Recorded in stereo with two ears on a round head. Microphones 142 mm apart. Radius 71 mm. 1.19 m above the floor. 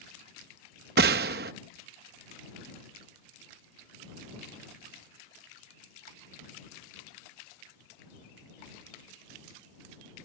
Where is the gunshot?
65° right (ahead or behind).